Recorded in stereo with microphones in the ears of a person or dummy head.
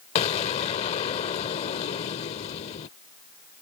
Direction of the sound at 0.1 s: 35° left (ahead or behind).